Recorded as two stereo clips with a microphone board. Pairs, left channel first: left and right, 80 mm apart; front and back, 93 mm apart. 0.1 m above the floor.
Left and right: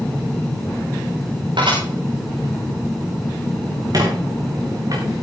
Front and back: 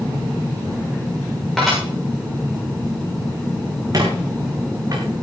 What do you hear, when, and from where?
1.6 s dishes clattering: 90° right, 6.5 m
3.9 s a squeak: 130° right, 4 m